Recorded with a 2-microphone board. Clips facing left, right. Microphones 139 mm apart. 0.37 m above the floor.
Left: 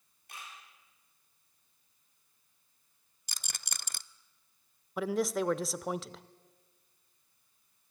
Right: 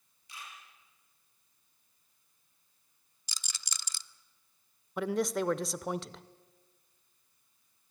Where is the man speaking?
Centre (ahead or behind), 0.8 m.